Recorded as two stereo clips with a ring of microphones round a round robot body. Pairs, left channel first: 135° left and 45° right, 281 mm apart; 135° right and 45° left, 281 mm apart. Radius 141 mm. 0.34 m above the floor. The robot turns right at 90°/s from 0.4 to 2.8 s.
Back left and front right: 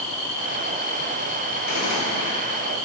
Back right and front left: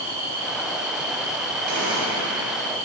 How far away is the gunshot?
About 2 m.